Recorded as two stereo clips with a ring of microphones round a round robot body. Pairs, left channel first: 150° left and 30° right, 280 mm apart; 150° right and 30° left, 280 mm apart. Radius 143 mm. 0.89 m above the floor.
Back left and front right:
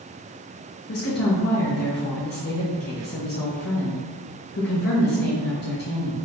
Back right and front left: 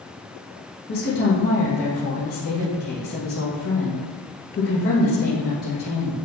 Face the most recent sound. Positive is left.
turn(degrees=180)